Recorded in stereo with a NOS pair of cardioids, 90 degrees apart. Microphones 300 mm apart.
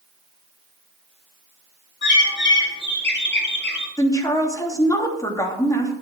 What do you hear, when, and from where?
2.0 s a bird: 35° left, 3.5 m
4.0 s a woman speaking: 10° left, 3 m